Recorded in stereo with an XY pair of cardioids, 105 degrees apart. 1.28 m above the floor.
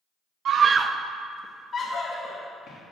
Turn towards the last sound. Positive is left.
turn(degrees=60)